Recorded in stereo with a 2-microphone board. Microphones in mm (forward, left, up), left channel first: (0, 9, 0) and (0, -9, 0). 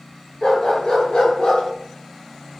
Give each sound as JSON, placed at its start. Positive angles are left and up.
{"t": 0.4, "sound": "a dog barking", "side_deg": 40, "distance_m": 4.0}